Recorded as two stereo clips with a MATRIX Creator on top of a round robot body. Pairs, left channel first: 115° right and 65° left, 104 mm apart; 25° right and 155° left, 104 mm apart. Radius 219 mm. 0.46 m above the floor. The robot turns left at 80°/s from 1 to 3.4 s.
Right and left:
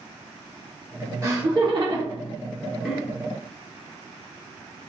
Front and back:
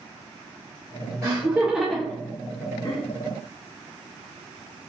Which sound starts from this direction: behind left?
Laughter, at 1.2 s.